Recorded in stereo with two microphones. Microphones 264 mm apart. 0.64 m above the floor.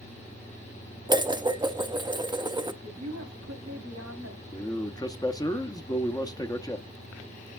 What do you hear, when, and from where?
1.1 s dishes clattering: 15° right (ahead or behind), 0.5 m
2.8 s a woman speaking: 75° right (ahead or behind), 2 m
4.5 s a man speaking: 15° left (ahead or behind), 0.8 m